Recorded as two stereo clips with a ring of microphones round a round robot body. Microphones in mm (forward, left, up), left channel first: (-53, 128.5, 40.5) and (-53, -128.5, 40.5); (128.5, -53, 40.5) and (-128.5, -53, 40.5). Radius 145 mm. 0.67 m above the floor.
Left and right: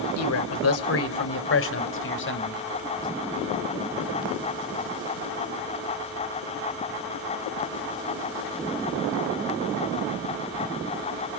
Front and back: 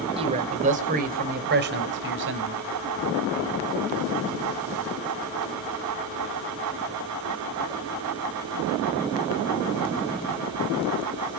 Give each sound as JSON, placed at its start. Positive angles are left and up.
{"t": 0.2, "sound": "a man speaking", "azimuth_deg": 110, "distance_m": 2.5}